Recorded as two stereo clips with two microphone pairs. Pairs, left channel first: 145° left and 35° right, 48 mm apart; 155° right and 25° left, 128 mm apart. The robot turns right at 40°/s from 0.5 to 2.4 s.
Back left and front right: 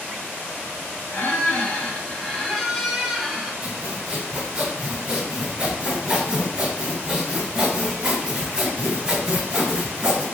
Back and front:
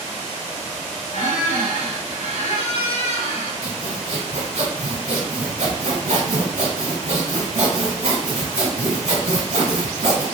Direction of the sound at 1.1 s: 175° right.